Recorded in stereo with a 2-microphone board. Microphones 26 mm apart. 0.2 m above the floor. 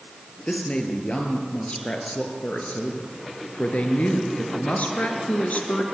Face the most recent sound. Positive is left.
turn(degrees=70)  # may be behind; listen again after turning